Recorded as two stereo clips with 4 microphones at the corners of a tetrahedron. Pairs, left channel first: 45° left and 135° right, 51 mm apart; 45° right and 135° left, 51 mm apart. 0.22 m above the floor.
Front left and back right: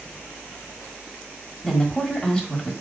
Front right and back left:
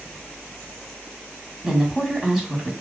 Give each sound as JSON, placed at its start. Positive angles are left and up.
{"t": 1.6, "sound": "a woman speaking", "azimuth_deg": 70, "distance_m": 1.6}